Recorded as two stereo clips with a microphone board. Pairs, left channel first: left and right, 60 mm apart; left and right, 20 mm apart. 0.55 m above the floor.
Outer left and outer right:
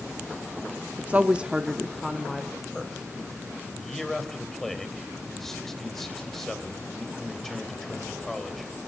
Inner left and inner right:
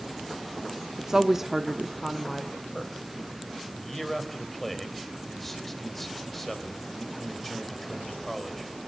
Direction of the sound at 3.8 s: 5° left (ahead or behind).